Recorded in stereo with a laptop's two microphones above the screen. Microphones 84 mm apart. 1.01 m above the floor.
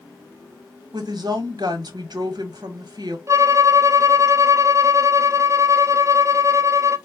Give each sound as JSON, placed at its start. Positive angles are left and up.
{"t": 0.9, "sound": "a woman speaking", "side_deg": -55, "distance_m": 1.2}
{"t": 3.3, "sound": "a violin", "side_deg": -40, "distance_m": 0.5}